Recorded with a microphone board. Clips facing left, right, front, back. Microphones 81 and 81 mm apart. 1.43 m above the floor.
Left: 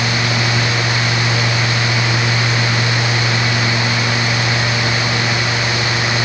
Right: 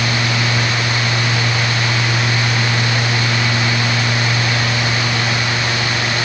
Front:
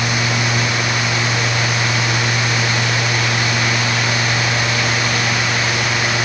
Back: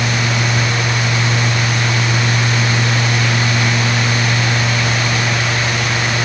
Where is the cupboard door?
No cupboard door in this recording.